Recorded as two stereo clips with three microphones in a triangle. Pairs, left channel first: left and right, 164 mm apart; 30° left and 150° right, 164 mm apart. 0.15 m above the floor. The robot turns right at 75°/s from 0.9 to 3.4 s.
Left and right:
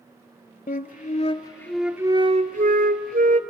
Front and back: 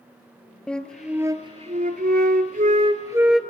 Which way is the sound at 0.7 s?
115° left.